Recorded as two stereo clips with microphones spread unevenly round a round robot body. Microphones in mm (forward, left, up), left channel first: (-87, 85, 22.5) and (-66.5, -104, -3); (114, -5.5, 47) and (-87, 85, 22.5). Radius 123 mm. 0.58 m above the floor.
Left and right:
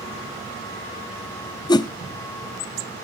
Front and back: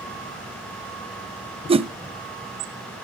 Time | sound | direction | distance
1.7 | a whoosh | 160° left | 0.7 m